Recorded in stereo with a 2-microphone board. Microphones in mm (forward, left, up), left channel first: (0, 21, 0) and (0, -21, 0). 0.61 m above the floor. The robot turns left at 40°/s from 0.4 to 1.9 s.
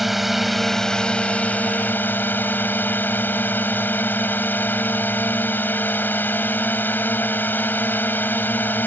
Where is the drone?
175° right; by 8.9 s 125° left.